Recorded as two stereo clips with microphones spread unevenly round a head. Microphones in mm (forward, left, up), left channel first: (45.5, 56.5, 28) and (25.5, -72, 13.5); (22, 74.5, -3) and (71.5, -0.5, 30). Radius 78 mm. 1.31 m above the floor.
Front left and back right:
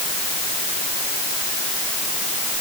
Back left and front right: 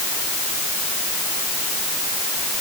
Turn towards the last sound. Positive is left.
No sound to turn to.